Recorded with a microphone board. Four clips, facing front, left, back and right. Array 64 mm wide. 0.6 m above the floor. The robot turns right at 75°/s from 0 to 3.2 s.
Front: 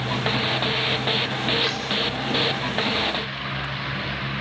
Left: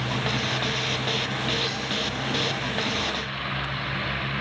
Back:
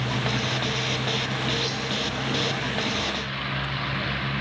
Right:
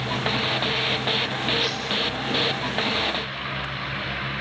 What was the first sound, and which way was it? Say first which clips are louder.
Cutlery clinking: right 2 dB, front 3 dB; 15° right.